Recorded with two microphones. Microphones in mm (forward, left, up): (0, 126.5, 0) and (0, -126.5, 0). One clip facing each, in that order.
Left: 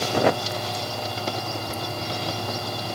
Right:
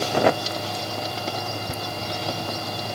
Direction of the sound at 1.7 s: 55° right (ahead or behind).